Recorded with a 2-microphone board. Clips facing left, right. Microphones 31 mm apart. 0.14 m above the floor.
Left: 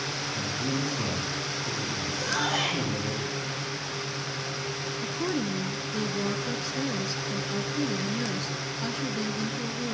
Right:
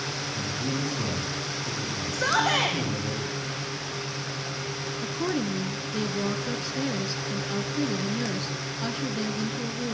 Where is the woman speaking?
10° right (ahead or behind), 1.3 m.